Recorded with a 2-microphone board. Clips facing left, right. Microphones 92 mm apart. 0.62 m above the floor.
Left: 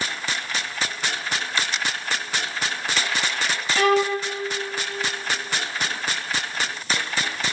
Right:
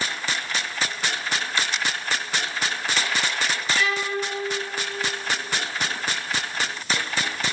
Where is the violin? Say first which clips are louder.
Left 9 dB; 60° left (ahead or behind), 1.3 m.